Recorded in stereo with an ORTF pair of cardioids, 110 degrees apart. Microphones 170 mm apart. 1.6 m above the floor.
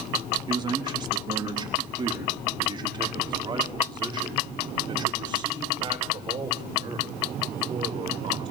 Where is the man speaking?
25° right, 3 m.